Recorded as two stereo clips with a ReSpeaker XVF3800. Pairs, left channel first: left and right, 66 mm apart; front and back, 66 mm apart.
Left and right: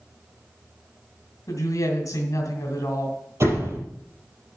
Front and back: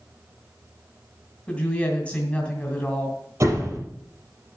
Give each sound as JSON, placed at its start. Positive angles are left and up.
{"t": 1.5, "sound": "a woman speaking", "azimuth_deg": 70, "distance_m": 2.0}
{"t": 3.4, "sound": "a door slam", "azimuth_deg": -135, "distance_m": 5.5}